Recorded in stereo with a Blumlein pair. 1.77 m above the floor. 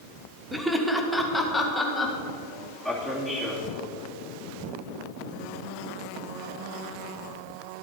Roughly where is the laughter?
Ahead.